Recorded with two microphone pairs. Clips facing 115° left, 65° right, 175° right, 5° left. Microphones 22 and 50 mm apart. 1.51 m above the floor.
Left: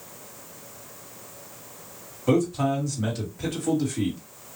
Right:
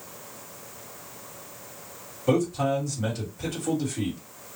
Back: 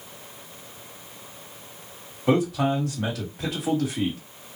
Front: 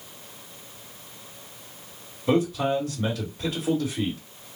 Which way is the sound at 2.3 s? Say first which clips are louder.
Left 1 dB, back 1 dB; 160° right.